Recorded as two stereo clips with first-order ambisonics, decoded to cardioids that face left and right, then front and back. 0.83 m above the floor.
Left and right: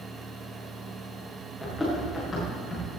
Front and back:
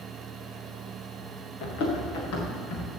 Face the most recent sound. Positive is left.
turn(degrees=15)